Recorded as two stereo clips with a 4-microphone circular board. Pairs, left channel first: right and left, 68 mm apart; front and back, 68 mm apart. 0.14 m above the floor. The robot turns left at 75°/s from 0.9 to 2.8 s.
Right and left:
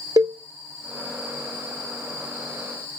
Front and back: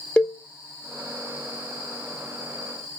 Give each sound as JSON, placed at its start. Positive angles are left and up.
{"t": 0.2, "sound": "a cowbell", "azimuth_deg": 75, "distance_m": 0.9}